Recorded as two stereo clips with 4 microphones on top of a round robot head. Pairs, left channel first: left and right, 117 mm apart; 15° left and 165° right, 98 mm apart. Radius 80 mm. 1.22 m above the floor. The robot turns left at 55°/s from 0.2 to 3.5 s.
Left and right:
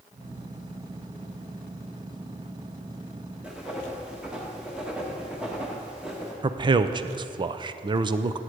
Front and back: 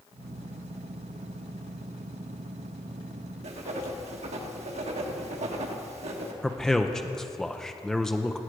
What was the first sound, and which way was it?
Writing, 170° right.